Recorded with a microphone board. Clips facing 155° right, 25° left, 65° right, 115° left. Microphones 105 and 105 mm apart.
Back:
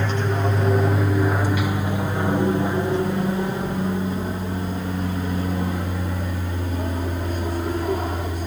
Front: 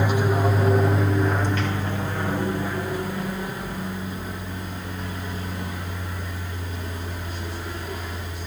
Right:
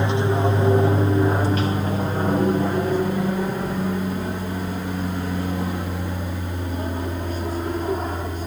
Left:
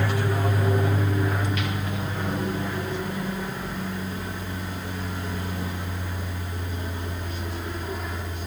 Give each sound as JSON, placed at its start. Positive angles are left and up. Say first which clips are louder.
{"t": 0.0, "sound": "an aircraft", "louder": "front 2 dB, right 5 dB", "azimuth_deg": -40}